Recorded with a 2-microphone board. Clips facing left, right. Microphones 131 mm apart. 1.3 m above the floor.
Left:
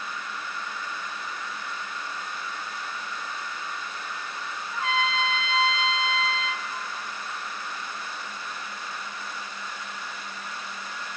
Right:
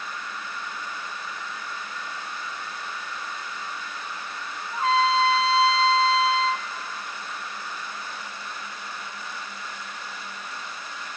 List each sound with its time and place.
4.7 s a trumpet: 35° right (ahead or behind), 0.6 m